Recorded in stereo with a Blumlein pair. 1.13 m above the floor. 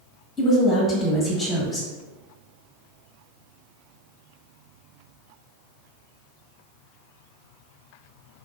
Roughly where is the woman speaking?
Ahead.